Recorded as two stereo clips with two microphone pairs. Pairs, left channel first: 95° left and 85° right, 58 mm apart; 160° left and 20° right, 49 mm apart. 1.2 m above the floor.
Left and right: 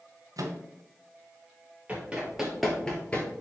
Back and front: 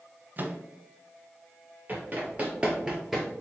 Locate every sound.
0.4 s a microwave: 70° right, 0.6 m
1.9 s running footsteps: 40° right, 1.5 m; by 3.3 s 65° left, 1.3 m